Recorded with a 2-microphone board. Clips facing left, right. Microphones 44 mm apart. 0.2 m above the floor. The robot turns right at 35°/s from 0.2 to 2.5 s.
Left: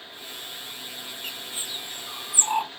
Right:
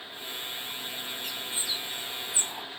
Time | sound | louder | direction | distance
1.2 | a bird | even | 35° left (ahead or behind) | ?